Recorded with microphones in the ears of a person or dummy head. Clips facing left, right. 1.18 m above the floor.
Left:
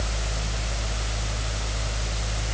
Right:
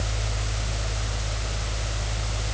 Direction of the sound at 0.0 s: 60° left (ahead or behind).